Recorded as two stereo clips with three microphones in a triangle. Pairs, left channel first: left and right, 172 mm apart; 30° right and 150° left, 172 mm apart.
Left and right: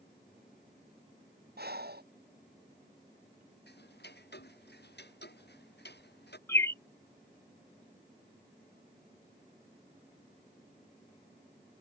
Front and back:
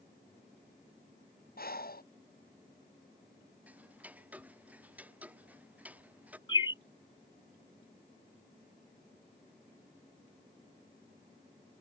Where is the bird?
20° left.